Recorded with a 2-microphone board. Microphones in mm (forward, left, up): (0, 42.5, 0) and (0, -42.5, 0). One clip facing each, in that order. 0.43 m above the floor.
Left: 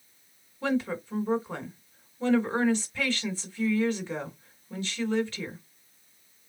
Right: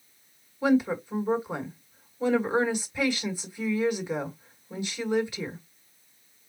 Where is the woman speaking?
15° right (ahead or behind), 2 m.